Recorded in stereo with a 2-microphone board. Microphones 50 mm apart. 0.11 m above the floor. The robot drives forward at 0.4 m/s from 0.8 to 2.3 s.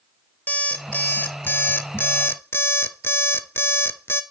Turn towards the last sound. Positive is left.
turn(degrees=50)  # may be behind; listen again after turning